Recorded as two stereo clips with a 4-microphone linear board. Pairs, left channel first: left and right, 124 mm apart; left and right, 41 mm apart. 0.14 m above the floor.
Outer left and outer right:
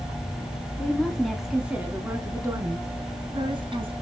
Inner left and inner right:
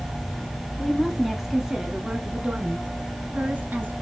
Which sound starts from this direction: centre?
A woman speaking, at 0.8 s.